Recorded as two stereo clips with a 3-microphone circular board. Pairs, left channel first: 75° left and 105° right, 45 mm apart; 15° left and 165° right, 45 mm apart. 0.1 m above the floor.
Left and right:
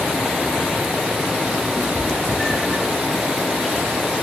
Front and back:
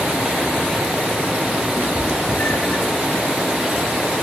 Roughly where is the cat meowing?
Ahead right.